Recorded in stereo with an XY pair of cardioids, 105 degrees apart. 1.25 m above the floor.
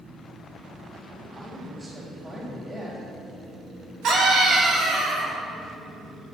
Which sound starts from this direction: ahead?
A man speaking, at 1.4 s.